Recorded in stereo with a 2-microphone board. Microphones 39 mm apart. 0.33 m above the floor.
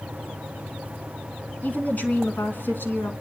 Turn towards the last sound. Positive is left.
turn(degrees=65)  # may be behind; listen again after turning